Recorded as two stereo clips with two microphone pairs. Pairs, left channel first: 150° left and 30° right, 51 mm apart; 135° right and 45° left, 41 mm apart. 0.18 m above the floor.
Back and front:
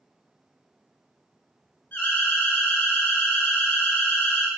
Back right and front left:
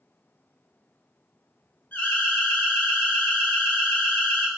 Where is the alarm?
170° right, 1.6 m.